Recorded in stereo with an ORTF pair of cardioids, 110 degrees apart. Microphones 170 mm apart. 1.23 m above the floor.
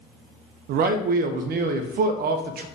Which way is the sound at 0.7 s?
65° right.